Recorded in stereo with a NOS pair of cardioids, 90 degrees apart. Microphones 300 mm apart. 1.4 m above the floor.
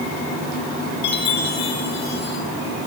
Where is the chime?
60° left, 3 m.